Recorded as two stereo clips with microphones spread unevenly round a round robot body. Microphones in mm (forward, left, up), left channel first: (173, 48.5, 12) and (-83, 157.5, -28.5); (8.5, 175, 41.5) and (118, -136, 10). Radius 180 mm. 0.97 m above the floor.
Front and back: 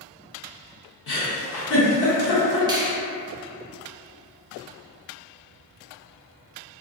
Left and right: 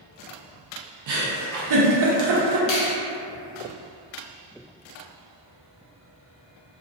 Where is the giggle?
50° right, 0.7 m.